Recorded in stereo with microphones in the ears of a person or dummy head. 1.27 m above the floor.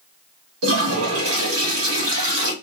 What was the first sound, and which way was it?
A toilet flushing, 80° right.